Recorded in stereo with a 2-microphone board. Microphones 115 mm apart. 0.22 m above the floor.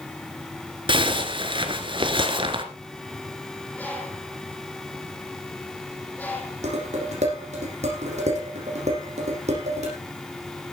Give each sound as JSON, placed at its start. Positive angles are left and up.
{"t": 0.9, "sound": "a zipper", "side_deg": -45, "distance_m": 1.7}
{"t": 3.8, "sound": "a bird", "side_deg": 15, "distance_m": 4.0}
{"t": 6.6, "sound": "dishes clattering", "side_deg": -75, "distance_m": 7.5}